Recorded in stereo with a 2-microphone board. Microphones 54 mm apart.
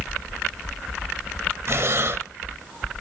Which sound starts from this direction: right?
Breathing, at 1.7 s.